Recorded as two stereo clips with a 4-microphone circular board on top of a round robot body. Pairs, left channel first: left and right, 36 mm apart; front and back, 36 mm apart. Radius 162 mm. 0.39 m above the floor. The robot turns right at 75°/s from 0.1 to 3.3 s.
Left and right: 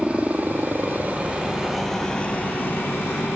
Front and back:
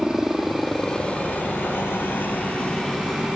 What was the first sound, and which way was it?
A helicopter, 115° right.